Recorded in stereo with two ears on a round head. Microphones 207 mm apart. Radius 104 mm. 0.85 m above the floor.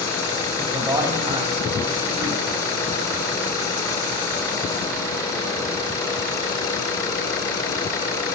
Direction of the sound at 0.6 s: 15° right (ahead or behind).